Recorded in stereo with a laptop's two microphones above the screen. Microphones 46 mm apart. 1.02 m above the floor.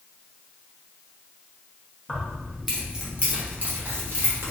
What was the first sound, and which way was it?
Keys jangling, 15° left (ahead or behind).